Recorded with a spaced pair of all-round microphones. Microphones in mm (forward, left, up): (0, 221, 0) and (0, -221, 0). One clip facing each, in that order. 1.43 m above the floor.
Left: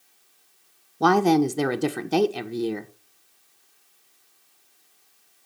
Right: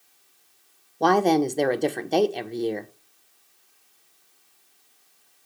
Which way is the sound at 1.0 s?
25° left (ahead or behind).